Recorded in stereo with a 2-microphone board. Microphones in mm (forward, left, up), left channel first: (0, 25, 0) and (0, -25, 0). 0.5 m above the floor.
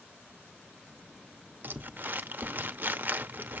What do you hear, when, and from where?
1.6 s crumpling: 45° right (ahead or behind), 0.6 m